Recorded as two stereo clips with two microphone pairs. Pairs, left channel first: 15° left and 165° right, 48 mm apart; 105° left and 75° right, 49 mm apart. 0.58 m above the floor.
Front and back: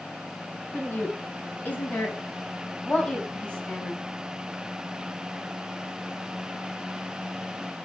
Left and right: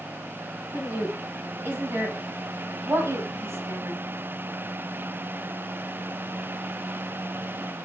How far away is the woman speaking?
About 5 m.